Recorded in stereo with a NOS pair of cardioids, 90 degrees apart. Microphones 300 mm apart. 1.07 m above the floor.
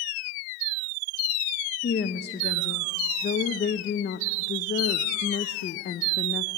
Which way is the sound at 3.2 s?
35° left.